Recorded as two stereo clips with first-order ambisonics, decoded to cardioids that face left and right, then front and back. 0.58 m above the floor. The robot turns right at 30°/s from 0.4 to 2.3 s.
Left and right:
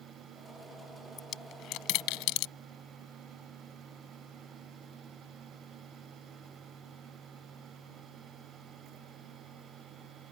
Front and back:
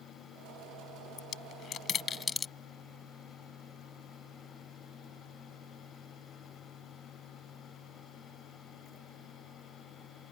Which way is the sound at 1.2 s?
40° left.